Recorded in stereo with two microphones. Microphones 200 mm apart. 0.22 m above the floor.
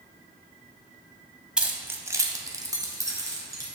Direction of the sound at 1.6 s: 5° right (ahead or behind).